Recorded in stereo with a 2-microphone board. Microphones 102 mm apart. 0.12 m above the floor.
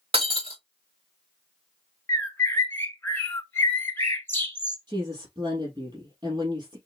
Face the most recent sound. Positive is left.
turn(degrees=-50)  # may be behind; listen again after turning